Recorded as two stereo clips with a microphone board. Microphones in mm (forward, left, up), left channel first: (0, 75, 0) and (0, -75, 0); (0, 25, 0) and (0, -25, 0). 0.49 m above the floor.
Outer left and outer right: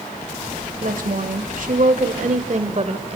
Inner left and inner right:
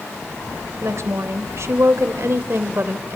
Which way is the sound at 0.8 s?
60° right (ahead or behind).